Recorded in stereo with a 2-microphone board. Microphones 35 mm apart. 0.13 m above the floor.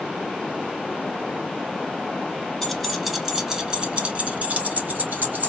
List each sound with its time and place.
2.6 s keys jangling: 10° left (ahead or behind), 1.1 m; by 5.5 s 55° right (ahead or behind), 1.4 m